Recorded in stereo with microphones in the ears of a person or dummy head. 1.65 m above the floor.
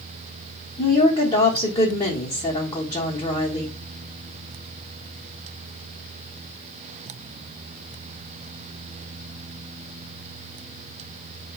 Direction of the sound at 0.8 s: 20° left (ahead or behind).